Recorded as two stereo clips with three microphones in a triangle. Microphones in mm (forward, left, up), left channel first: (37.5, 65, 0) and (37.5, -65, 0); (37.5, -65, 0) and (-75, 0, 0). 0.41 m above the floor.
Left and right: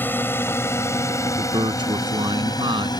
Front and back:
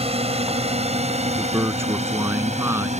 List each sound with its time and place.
0.0 s a drone: 160° left; by 3.0 s 140° left
1.4 s a man speaking: 140° right